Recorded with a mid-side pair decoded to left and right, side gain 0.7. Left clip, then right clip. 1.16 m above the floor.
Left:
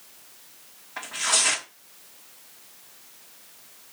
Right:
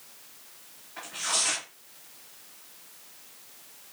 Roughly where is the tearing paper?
Ahead left.